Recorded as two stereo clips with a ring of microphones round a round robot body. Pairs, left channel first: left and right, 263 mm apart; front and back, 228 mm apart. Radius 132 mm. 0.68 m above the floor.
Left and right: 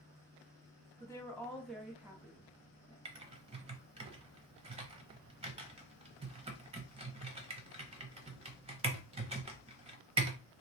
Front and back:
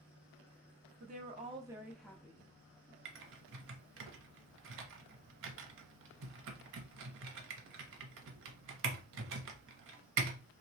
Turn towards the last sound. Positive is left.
turn(degrees=-155)